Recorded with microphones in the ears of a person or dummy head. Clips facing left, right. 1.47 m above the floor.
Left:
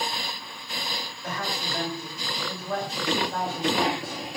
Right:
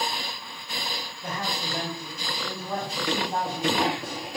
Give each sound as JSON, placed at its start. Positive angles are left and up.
{"t": 1.2, "sound": "a man speaking", "side_deg": -20, "distance_m": 4.5}